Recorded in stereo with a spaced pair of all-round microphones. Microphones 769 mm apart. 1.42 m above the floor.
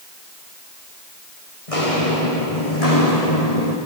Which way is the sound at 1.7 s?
45° left (ahead or behind).